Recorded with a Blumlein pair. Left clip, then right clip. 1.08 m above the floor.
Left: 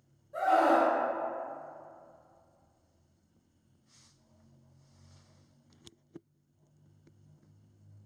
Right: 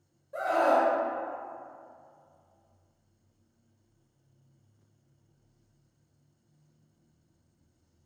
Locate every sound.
0.3 s a scream: 15° right, 1.3 m